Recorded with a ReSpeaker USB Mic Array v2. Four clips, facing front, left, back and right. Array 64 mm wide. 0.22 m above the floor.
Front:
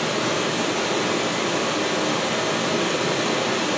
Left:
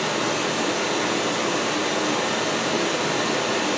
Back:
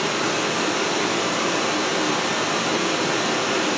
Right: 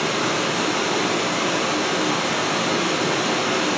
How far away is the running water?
About 1.3 m.